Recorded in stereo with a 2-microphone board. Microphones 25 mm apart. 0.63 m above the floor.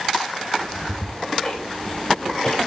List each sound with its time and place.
0.6 s ticking: 25° left (ahead or behind), 3.5 m